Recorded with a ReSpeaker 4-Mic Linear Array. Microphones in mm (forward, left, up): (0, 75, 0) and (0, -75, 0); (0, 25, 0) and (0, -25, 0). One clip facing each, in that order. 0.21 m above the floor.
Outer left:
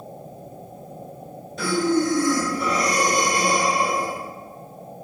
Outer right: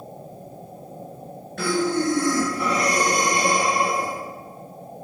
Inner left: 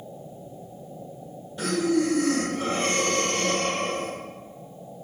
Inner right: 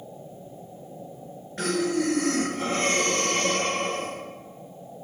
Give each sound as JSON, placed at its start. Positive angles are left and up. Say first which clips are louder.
{"t": 1.6, "sound": "breathing", "louder": "outer left 2 dB, inner left 2 dB", "side_deg": -70, "distance_m": 1.7}